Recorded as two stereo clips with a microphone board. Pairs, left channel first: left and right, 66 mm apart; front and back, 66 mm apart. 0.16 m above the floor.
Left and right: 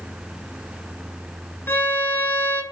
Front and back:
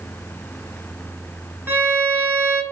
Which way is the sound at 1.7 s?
140° left.